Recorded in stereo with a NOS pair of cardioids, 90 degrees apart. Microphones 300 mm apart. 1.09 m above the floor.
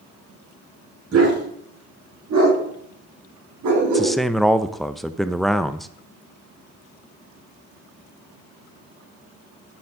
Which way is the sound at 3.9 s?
Straight ahead.